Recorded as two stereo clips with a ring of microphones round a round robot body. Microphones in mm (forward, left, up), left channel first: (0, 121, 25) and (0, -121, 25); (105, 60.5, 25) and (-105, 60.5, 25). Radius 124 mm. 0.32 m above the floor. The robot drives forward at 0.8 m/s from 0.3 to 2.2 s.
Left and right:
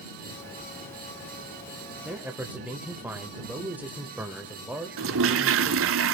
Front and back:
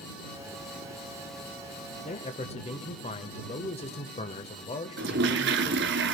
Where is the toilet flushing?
130° right, 0.7 m.